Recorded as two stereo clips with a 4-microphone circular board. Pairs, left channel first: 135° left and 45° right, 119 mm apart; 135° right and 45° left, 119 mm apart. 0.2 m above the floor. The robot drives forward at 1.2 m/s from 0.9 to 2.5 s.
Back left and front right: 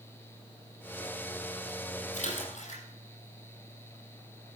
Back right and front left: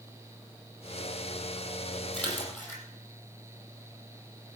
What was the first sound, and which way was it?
A splash, 145° left.